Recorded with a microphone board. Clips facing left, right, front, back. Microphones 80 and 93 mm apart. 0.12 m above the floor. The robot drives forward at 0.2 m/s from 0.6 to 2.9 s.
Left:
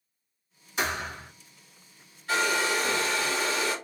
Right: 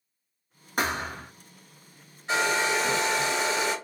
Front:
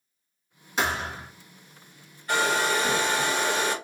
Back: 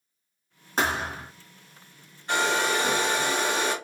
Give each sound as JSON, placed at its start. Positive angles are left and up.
{"t": 0.8, "sound": "a thud", "azimuth_deg": -130, "distance_m": 1.0}
{"t": 2.3, "sound": "a hair dryer", "azimuth_deg": -140, "distance_m": 1.6}